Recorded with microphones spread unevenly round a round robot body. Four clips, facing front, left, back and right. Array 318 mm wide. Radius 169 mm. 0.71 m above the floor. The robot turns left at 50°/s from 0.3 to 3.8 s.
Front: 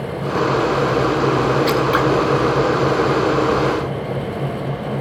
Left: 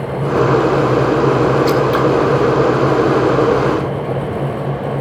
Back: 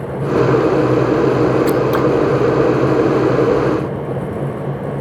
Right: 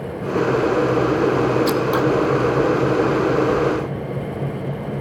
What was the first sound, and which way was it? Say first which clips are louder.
Scissors: left 5 dB, back 2 dB; 135° right.